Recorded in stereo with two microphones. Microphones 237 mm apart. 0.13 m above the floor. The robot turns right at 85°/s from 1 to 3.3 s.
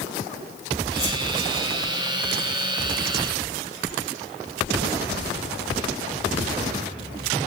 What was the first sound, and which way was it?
A whoosh, 30° right (ahead or behind).